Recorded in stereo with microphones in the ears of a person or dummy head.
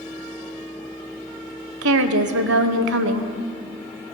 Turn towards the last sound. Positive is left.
turn(degrees=-70)  # may be behind; listen again after turning